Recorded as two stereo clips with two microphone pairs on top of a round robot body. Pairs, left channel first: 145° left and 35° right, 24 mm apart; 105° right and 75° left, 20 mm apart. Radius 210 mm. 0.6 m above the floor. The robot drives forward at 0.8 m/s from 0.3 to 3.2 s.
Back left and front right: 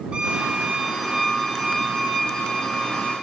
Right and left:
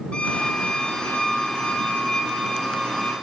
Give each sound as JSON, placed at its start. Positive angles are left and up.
{"t": 0.1, "sound": "a violin", "azimuth_deg": -85, "distance_m": 1.0}